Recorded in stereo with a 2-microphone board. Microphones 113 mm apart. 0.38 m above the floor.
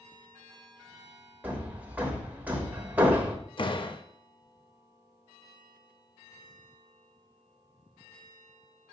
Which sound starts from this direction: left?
A door slam, at 3.6 s.